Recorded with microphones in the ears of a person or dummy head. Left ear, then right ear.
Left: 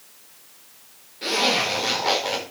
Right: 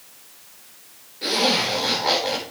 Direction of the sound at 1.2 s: 5° left (ahead or behind).